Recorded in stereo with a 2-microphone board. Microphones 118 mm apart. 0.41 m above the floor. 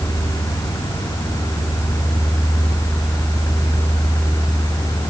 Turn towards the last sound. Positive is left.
No sound to turn to.